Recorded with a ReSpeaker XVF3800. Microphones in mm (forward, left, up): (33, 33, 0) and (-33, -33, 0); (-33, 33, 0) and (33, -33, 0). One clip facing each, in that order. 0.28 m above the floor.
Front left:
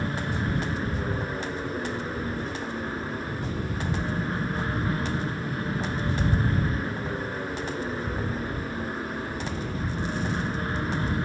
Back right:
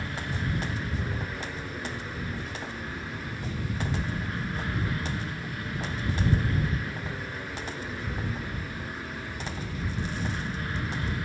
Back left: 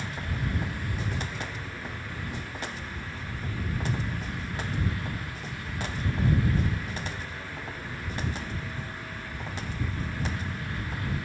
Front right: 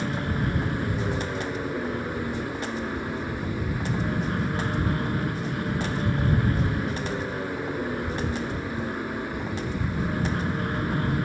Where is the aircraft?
10° right.